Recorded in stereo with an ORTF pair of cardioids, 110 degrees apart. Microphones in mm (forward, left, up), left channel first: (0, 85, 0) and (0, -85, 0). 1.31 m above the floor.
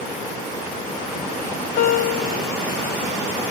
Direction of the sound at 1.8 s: 60° left.